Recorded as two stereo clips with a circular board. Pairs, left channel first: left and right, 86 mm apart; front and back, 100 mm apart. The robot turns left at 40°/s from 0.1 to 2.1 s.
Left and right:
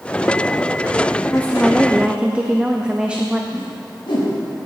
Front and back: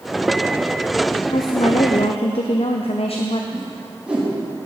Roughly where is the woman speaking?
Ahead.